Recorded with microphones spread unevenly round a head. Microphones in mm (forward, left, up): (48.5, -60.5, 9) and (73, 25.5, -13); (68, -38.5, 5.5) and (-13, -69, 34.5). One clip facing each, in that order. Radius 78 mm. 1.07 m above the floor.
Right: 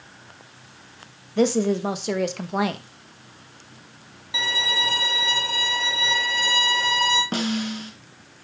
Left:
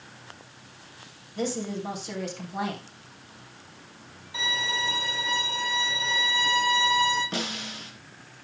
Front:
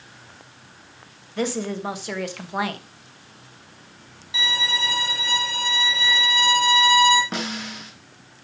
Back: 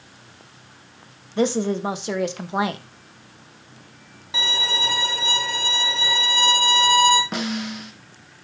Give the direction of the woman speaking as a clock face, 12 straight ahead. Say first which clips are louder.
Right 10 dB, back 5 dB; 3 o'clock.